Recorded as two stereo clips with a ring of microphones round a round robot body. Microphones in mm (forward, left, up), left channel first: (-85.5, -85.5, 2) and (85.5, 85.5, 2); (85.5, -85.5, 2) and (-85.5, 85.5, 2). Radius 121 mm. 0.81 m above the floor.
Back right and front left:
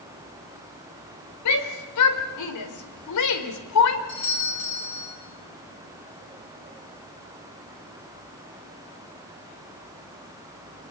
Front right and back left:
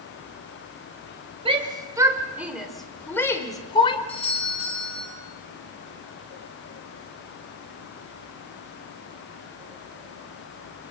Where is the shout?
155° right, 3.5 m; by 4.0 s 115° right, 3.5 m.